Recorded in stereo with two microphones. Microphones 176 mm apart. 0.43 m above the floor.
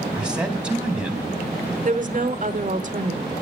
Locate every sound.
0.1 s a man speaking: 5° right (ahead or behind), 3.5 m
1.9 s a woman speaking: 50° right (ahead or behind), 1.1 m